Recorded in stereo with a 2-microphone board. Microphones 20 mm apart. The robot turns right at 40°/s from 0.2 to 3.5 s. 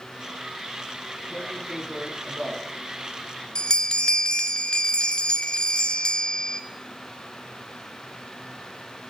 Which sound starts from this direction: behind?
Tearing paper, at 1.3 s.